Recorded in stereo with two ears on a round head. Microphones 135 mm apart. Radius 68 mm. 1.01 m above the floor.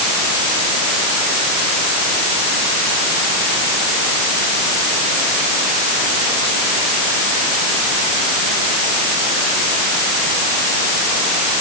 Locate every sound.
Only background noise.